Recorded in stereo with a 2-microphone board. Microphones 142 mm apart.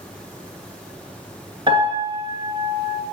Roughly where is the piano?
Right.